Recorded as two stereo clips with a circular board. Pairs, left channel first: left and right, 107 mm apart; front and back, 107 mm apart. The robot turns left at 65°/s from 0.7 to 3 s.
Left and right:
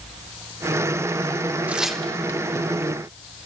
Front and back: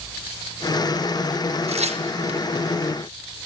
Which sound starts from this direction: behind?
Tearing paper, at 1.7 s.